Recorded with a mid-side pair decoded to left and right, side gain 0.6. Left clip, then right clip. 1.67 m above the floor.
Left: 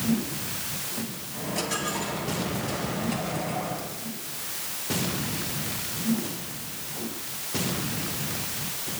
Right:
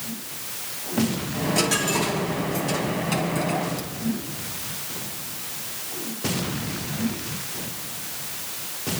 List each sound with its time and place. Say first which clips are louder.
1.3 s a dropped coin: right 6 dB; 35° right, 7 m